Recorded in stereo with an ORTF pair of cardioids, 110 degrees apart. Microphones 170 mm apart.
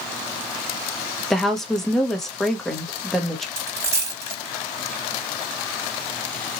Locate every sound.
1.3 s a woman speaking: straight ahead, 1.0 m
3.6 s a dropped coin: 20° right, 1.8 m